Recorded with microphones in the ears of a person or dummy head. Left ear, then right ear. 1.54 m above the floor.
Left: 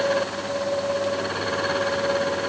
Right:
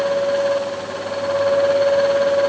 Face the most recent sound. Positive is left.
No sound to turn to.